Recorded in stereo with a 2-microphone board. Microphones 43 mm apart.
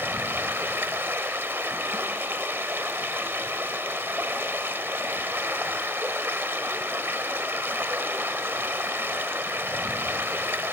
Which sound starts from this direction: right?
Running water, at 0.0 s.